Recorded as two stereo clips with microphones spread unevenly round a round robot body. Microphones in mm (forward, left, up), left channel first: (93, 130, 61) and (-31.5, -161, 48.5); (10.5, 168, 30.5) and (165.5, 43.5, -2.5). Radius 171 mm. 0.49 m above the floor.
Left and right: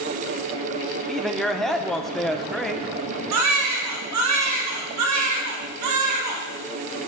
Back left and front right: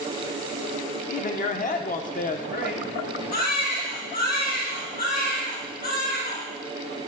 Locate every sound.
1.1 s a man speaking: 160° left, 0.8 m
3.3 s a baby crying: 150° right, 2 m